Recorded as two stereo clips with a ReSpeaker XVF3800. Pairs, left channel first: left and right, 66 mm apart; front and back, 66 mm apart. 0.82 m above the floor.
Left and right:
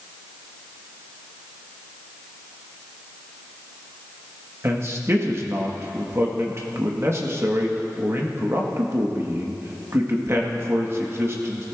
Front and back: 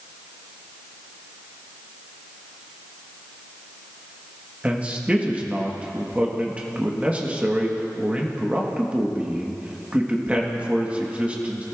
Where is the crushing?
I don't hear crushing.